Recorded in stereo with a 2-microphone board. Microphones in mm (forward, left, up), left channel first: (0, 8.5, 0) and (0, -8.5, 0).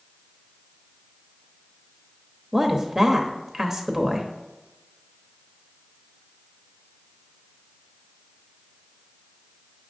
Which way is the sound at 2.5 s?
20° right (ahead or behind).